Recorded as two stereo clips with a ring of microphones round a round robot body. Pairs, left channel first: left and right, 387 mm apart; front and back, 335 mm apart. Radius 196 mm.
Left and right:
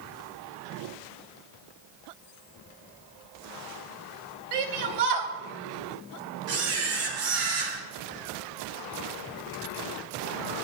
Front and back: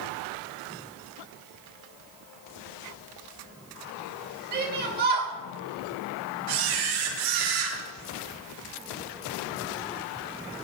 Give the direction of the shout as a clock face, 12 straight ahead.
4 o'clock.